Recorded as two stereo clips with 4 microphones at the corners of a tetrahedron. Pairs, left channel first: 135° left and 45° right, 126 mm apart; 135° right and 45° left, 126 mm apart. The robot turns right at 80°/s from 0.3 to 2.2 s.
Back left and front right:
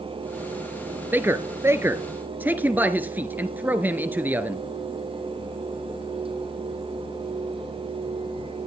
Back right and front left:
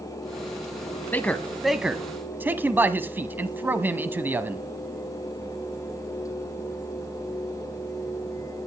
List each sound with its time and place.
1.1 s a man speaking: 85° right, 1.0 m; by 4.6 s straight ahead, 1.0 m